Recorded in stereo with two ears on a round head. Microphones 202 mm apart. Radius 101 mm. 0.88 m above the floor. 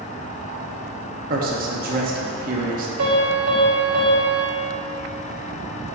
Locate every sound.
1.3 s a man speaking: 40° right (ahead or behind), 1.0 m
3.0 s a piano: 75° right (ahead or behind), 1.8 m